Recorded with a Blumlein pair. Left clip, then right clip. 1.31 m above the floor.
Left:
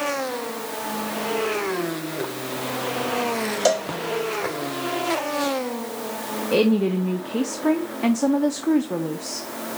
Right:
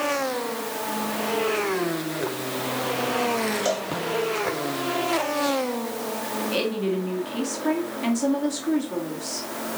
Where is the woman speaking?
60° left, 1.3 m.